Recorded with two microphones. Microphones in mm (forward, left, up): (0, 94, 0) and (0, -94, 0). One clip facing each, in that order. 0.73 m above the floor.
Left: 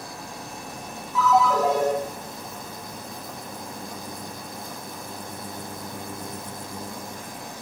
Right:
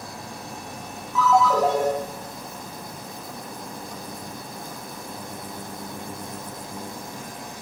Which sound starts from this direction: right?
A ringtone, at 1.1 s.